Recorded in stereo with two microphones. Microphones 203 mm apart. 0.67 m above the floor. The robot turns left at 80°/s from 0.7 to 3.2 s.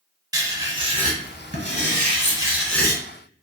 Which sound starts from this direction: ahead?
Writing, at 0.3 s.